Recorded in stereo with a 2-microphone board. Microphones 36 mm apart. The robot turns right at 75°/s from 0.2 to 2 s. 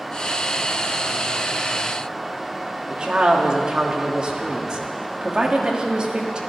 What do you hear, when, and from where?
2.9 s a woman speaking: 25° right (ahead or behind), 1.6 m